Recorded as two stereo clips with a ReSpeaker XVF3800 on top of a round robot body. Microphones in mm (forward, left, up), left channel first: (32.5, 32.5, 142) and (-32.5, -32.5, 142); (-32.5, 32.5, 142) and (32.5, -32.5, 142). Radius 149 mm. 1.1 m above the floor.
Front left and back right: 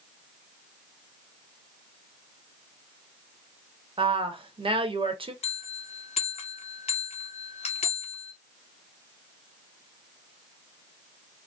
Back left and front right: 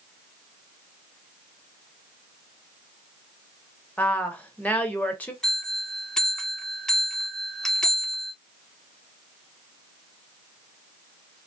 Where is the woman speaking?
150° right, 1.1 m.